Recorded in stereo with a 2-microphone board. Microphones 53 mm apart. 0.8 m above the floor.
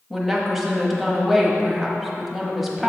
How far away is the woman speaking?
About 1.0 m.